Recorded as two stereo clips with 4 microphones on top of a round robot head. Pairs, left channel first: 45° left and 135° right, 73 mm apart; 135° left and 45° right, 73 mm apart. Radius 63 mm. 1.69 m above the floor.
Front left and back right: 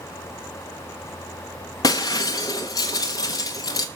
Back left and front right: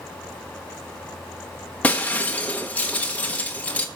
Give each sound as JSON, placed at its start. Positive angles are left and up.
{"t": 1.8, "sound": "breaking glass", "azimuth_deg": 70, "distance_m": 0.9}